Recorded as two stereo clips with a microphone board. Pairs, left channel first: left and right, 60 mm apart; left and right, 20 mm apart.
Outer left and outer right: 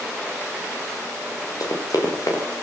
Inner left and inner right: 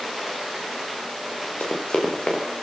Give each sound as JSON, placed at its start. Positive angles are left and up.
{"t": 1.6, "sound": "running footsteps", "side_deg": 80, "distance_m": 7.5}